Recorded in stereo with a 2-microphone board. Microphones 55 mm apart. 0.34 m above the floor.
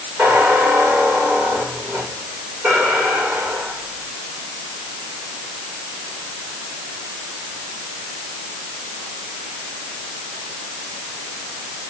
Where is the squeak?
30° right (ahead or behind), 8.5 m.